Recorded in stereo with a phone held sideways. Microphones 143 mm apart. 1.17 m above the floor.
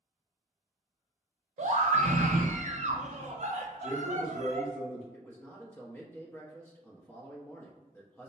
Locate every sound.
1.6 s a scream: 60° right (ahead or behind), 0.6 m
3.8 s a man speaking: 60° left (ahead or behind), 1.9 m
5.1 s a man speaking: 15° left (ahead or behind), 0.8 m